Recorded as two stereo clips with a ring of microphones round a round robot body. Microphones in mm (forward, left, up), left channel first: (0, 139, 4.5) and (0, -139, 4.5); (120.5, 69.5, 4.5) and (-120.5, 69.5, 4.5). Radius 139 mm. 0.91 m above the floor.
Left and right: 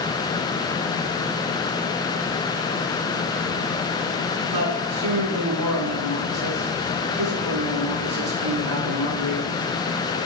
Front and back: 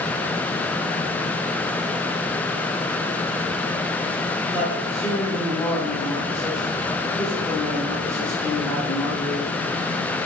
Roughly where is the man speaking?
Right.